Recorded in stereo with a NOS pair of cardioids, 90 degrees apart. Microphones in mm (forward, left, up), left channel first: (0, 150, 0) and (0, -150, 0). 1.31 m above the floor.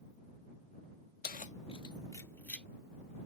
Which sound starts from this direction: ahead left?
Keys jangling, at 1.2 s.